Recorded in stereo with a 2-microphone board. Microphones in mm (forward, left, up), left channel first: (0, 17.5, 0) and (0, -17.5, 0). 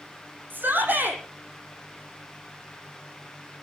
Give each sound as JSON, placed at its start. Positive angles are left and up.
{"t": 0.5, "sound": "a shout", "side_deg": -60, "distance_m": 7.0}